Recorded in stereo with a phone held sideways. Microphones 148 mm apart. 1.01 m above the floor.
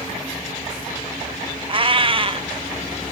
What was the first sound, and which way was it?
A cat meowing, 35° right (ahead or behind).